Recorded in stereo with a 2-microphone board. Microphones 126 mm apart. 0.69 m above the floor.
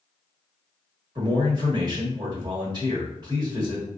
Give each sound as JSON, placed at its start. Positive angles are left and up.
{"t": 1.1, "sound": "a man speaking", "side_deg": -30, "distance_m": 1.4}